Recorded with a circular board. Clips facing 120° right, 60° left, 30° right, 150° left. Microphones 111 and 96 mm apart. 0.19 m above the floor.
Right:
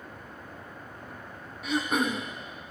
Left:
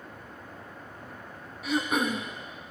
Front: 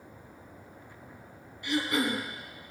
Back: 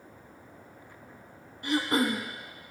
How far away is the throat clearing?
About 1.1 m.